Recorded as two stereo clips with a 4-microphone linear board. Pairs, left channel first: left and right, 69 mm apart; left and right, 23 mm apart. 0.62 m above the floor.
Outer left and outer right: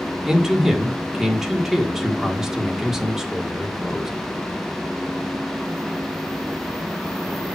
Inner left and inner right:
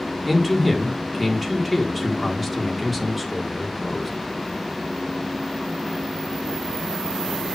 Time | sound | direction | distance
0.3 | a man speaking | 5° right (ahead or behind) | 1.6 m